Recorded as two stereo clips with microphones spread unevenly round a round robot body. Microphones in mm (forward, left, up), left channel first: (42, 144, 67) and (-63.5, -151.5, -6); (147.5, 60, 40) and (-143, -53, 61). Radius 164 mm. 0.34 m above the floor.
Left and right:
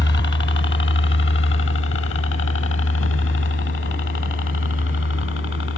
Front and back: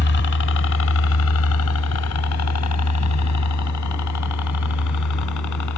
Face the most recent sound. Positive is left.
turn(degrees=15)